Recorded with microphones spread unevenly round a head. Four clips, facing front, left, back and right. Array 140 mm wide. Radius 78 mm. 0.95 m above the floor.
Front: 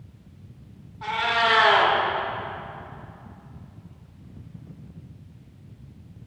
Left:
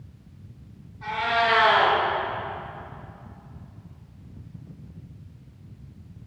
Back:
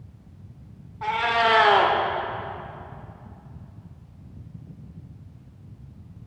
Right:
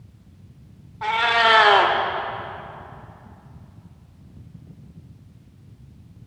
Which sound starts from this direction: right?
A cat meowing, at 1.0 s.